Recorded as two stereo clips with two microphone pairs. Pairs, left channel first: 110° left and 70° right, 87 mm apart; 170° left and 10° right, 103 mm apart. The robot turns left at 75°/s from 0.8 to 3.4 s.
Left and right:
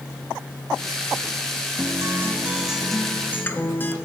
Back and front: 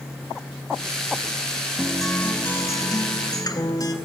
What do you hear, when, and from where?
1.8 s a guitar: 85° right, 0.8 m; by 3.9 s 155° left, 0.8 m